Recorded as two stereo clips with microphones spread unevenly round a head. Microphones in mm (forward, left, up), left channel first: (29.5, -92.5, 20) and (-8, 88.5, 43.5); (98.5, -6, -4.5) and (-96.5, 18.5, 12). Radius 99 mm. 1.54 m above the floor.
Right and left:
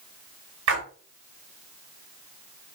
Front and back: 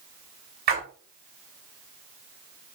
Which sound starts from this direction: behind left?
A splash, at 0.7 s.